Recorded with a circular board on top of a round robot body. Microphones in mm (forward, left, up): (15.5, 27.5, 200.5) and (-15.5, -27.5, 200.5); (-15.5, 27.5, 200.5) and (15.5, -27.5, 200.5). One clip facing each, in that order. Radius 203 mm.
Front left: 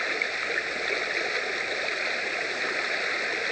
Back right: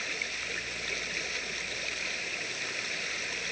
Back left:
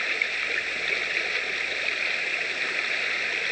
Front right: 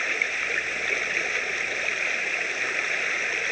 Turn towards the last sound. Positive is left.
turn(degrees=20)